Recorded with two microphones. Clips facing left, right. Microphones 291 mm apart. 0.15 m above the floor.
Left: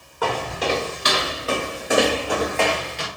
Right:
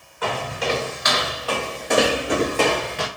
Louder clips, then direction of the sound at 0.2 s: Left 2 dB; 50° left (ahead or behind).